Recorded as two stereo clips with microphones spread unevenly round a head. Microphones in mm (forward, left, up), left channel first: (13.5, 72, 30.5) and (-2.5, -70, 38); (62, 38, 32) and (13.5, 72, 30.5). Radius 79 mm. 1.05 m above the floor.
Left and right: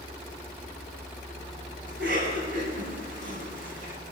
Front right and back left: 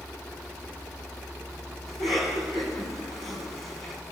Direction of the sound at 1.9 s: 65° right.